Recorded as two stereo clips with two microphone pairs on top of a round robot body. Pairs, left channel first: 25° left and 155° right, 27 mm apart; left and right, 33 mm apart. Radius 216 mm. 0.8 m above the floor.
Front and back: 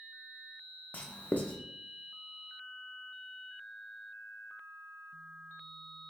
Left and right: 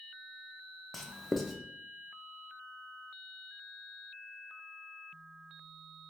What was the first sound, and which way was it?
Writing, 5° left.